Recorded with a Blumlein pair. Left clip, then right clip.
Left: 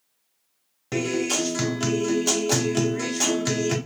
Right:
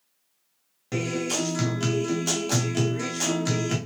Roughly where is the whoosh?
I don't hear a whoosh.